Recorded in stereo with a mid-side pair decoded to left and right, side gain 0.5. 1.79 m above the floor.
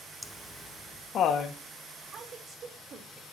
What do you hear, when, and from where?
0.2 s laughter: 10° left, 1.2 m; by 1.6 s 65° left, 2.5 m
2.0 s a woman speaking: 45° right, 4.5 m